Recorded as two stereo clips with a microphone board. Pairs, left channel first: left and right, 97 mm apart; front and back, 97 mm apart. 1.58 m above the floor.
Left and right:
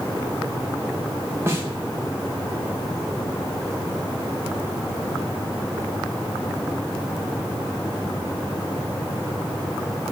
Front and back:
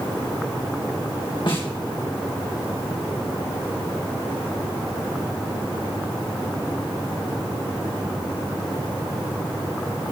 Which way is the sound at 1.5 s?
30° right.